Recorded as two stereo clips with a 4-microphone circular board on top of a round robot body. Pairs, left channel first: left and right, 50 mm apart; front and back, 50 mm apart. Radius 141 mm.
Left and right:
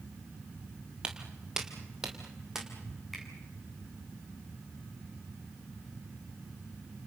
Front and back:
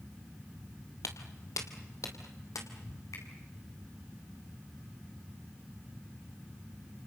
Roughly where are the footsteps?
Ahead.